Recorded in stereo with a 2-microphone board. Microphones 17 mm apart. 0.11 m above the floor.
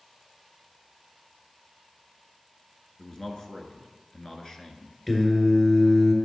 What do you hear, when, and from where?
3.0 s a man speaking: 30° left (ahead or behind), 1.2 m
5.1 s singing: 15° left (ahead or behind), 1.8 m